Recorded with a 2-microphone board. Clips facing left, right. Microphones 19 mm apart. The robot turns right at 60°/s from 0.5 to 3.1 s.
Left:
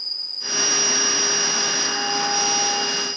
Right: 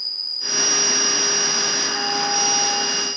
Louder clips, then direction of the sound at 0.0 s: Right 2 dB; 155° right.